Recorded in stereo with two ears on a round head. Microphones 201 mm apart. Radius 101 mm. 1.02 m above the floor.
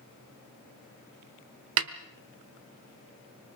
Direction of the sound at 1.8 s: 65° right (ahead or behind).